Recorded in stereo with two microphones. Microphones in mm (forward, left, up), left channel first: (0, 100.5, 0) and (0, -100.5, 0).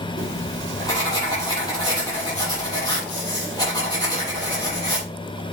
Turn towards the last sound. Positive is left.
turn(degrees=20)  # may be behind; listen again after turning